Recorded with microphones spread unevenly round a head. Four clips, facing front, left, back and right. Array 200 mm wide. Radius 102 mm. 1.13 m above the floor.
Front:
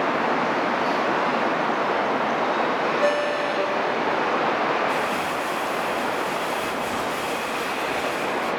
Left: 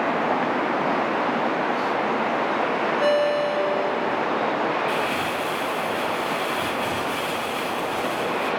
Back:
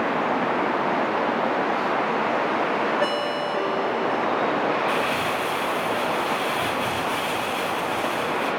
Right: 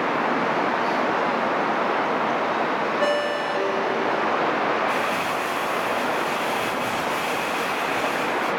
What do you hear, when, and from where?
3.0 s a ringtone: 165° right, 9.5 m
4.9 s crumpling: 155° left, 7 m